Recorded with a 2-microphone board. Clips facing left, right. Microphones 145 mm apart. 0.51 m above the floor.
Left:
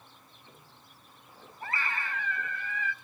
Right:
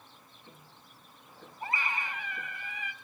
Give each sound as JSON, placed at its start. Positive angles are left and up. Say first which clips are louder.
{"t": 0.2, "sound": "ticking", "louder": "right 1 dB", "side_deg": -50, "distance_m": 6.5}
{"t": 1.6, "sound": "a scream", "louder": "even", "side_deg": -15, "distance_m": 2.5}